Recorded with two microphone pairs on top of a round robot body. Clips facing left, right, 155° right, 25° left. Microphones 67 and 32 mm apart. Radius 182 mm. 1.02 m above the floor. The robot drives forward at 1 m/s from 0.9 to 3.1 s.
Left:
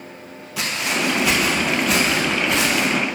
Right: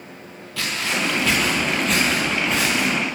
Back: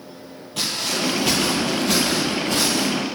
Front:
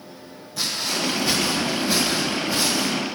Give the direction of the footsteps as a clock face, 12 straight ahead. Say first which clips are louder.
Left 1 dB, back 1 dB; 6 o'clock.